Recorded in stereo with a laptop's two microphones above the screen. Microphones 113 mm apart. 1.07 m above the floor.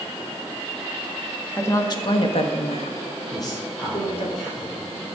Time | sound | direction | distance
1.6 | a woman speaking | 20° left (ahead or behind) | 1.8 m
3.3 | a man speaking | centre (ahead or behind) | 4 m